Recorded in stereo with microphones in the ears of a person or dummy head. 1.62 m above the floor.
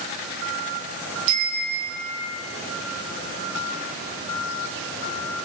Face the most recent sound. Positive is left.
turn(degrees=-55)  # may be behind; listen again after turning